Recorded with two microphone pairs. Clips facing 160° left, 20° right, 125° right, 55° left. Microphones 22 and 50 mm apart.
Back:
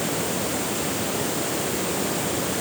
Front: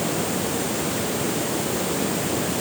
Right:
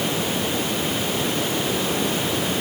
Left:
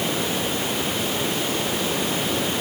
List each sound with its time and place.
Only background noise.